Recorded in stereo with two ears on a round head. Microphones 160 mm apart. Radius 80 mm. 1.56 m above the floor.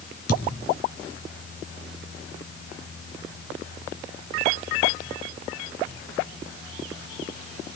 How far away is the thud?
About 3.5 m.